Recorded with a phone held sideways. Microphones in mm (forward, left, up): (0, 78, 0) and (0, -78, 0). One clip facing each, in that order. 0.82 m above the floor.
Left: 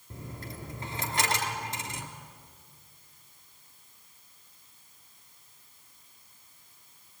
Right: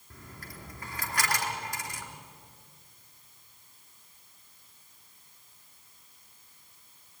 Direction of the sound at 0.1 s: 25° left (ahead or behind).